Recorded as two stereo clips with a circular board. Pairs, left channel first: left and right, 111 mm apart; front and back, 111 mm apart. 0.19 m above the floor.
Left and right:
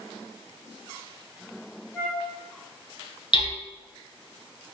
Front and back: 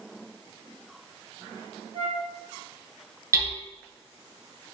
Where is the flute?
155° left, 1.4 m.